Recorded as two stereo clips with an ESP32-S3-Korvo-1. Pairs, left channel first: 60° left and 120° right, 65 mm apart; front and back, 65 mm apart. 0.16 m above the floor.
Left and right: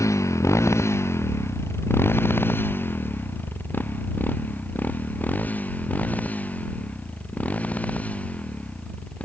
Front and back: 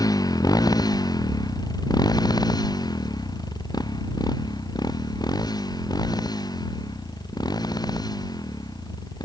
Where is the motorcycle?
20° left; by 9.2 s 10° right.